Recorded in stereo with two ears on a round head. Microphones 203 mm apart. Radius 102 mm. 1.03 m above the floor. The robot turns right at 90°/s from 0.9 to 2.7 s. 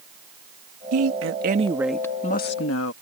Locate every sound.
0.9 s a woman speaking: 90° right; by 2.9 s 70° left